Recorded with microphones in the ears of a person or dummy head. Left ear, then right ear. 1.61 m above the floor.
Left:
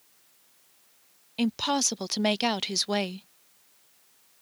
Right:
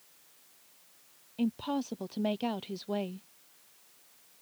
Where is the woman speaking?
55° left (ahead or behind).